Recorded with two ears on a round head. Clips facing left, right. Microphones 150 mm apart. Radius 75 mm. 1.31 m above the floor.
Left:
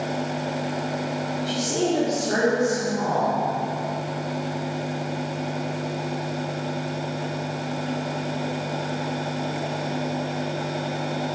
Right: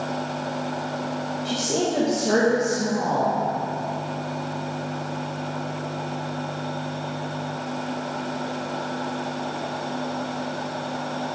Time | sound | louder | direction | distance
1.4 | a woman speaking | even | 40° right (ahead or behind) | 1.5 m